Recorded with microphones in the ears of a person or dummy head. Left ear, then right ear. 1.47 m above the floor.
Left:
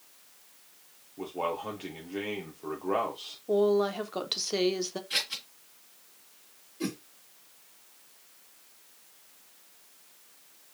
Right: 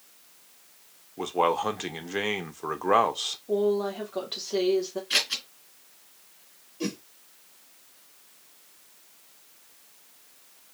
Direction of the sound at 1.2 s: 55° right (ahead or behind).